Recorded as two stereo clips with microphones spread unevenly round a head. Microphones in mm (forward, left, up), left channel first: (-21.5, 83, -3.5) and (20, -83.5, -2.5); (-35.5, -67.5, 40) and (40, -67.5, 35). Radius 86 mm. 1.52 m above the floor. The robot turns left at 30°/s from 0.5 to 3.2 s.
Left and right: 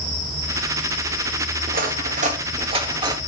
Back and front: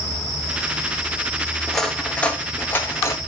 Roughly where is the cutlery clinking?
Right.